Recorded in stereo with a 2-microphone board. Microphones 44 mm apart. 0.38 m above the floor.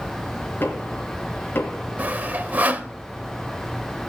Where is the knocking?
55° left (ahead or behind), 3.5 m.